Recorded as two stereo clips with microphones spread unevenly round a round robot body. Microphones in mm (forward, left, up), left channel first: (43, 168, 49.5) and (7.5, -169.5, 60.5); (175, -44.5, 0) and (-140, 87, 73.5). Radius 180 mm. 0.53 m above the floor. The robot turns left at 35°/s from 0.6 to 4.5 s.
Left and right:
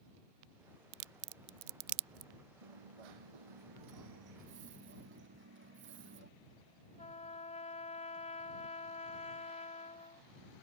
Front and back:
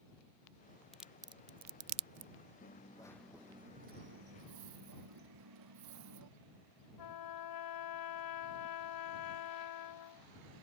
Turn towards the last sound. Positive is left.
turn(degrees=10)